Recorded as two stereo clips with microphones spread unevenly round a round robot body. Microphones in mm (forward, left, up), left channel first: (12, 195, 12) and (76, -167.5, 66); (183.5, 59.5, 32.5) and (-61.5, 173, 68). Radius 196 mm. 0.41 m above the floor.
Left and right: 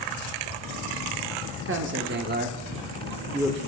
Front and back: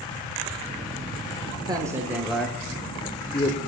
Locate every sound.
1.6 s a man speaking: 130° right, 1.3 m; by 3.6 s 15° left, 1.4 m